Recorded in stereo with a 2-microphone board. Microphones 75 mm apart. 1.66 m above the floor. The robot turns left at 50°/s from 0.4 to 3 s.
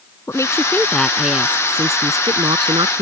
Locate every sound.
0.3 s a woman speaking: 40° left; by 3.0 s 90° right